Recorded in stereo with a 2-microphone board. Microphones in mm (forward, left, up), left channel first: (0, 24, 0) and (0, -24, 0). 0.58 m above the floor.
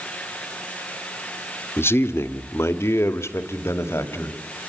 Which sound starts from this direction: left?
A man speaking, at 1.8 s.